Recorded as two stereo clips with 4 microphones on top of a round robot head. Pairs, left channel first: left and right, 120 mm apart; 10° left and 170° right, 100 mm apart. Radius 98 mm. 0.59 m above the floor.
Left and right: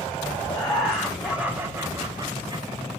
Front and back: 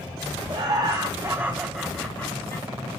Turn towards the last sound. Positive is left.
turn(degrees=-50)